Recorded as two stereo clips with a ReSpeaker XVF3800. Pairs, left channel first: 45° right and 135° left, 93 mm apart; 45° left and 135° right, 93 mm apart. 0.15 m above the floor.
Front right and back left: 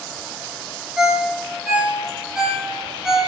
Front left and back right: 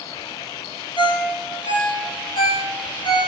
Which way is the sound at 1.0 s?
55° left.